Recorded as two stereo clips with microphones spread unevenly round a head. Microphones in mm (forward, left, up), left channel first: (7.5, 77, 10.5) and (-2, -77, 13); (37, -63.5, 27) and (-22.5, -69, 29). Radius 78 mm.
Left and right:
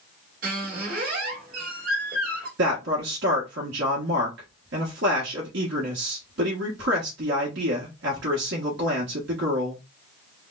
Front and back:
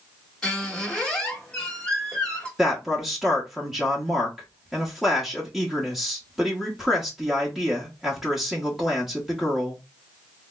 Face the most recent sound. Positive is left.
turn(degrees=-90)